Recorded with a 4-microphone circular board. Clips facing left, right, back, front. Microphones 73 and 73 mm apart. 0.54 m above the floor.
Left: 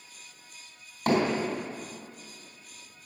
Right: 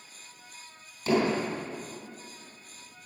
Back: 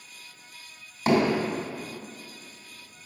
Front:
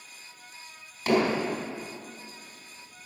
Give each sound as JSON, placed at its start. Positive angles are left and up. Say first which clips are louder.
{"t": 1.1, "sound": "hammering", "louder": "even, back 2 dB", "azimuth_deg": 115, "distance_m": 3.5}